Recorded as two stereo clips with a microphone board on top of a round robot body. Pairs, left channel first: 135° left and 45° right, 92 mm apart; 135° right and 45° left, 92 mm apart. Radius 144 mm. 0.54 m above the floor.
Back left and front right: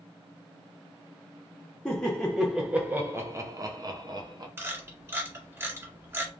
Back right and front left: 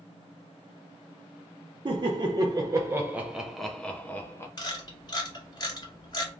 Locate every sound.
1.9 s laughter: 55° left, 1.0 m; by 4.5 s 75° right, 1.0 m
4.6 s a camera shutter: 105° right, 2 m